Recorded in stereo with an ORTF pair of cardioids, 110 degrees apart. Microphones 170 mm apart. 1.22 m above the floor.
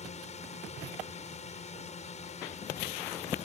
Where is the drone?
40° left.